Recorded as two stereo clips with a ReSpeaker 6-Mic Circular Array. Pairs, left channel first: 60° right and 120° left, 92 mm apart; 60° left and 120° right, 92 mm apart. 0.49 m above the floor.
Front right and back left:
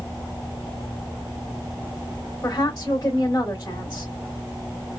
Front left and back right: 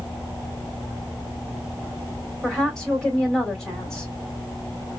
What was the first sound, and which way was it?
A woman speaking, 25° right.